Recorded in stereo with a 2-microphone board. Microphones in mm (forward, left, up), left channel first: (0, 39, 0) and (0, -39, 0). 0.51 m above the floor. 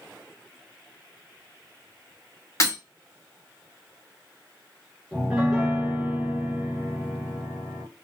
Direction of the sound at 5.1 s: 10° right (ahead or behind).